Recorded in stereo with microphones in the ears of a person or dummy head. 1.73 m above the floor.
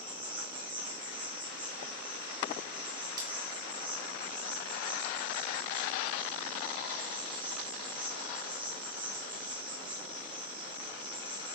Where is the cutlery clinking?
20° right (ahead or behind), 3 m.